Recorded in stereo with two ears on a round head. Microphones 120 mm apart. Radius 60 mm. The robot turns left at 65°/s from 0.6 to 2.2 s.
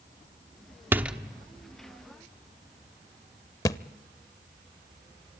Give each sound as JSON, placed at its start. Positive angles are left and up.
{"t": 0.9, "sound": "a door slam", "side_deg": -15, "distance_m": 1.0}
{"t": 3.6, "sound": "a thud", "side_deg": 25, "distance_m": 0.6}